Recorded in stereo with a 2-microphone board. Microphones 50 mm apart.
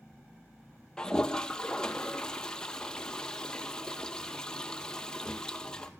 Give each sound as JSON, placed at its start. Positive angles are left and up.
{"t": 1.0, "sound": "a toilet flushing", "side_deg": 15, "distance_m": 0.8}